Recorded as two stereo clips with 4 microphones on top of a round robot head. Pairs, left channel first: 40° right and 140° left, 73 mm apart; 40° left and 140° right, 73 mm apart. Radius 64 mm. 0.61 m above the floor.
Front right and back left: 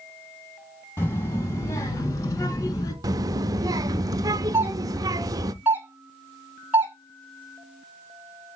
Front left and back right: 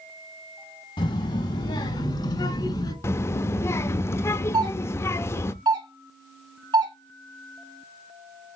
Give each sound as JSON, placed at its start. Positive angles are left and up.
{"t": 1.0, "sound": "a child speaking", "azimuth_deg": 20, "distance_m": 2.5}
{"t": 3.0, "sound": "a child speaking", "azimuth_deg": 95, "distance_m": 0.8}
{"t": 4.5, "sound": "a doorbell", "azimuth_deg": -160, "distance_m": 3.0}